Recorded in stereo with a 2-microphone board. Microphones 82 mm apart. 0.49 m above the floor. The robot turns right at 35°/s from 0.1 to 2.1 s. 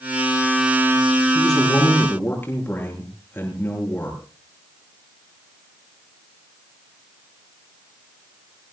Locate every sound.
1.4 s a man speaking: centre (ahead or behind), 8 m; by 4.2 s 25° left (ahead or behind), 8 m